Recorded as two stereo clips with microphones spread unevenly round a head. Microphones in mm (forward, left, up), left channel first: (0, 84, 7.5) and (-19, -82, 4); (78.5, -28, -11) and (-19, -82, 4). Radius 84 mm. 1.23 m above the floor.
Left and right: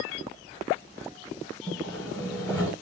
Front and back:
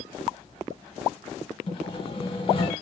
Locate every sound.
1.7 s sawing: 5° left, 1.6 m